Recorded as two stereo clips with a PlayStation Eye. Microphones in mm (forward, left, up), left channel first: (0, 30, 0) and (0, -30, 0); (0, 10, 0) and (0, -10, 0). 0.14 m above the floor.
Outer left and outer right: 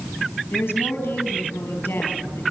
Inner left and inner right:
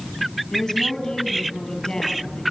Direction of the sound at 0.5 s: 35° left (ahead or behind).